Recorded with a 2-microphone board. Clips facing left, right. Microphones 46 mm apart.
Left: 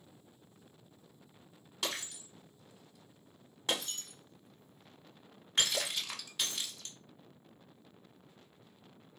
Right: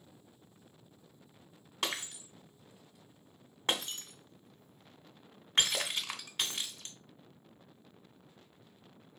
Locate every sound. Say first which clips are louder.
1.8 s breaking glass: right 2 dB; 40° right (ahead or behind), 1.1 m